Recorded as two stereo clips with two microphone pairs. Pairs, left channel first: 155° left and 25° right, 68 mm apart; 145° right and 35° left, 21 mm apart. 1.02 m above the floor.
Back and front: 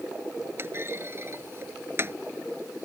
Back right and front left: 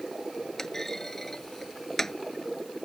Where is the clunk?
75° right.